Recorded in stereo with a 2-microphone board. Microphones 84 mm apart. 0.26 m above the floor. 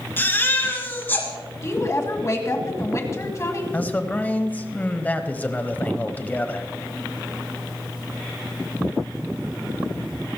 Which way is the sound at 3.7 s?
20° left (ahead or behind).